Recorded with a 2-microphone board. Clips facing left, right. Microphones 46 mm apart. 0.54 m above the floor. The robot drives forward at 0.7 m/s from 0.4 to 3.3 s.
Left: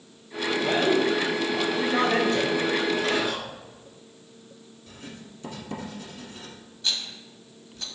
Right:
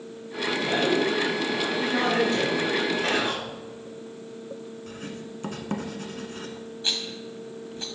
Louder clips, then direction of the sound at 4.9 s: Right 2 dB; 60° right (ahead or behind).